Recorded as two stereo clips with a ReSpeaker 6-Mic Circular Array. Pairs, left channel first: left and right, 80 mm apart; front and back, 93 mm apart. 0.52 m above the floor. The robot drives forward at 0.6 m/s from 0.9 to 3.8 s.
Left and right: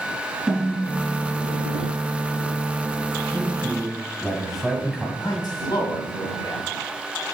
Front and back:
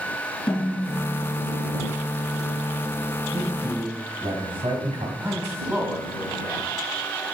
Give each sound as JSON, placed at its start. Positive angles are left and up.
{"t": 0.5, "sound": "a snare drum", "azimuth_deg": -10, "distance_m": 3.5}
{"t": 3.3, "sound": "a man speaking", "azimuth_deg": 180, "distance_m": 2.5}
{"t": 5.2, "sound": "a man speaking", "azimuth_deg": 115, "distance_m": 4.0}